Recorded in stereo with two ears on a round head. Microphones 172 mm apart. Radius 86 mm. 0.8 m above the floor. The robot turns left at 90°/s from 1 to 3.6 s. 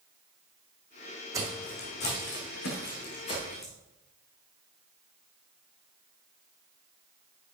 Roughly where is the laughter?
No laughter in this recording.